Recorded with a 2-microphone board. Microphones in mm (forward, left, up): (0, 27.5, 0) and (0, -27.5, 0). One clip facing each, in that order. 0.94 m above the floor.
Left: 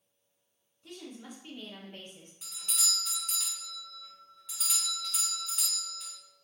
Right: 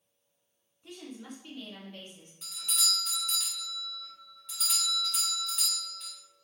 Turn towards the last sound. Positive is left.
turn(degrees=5)  # may be behind; listen again after turning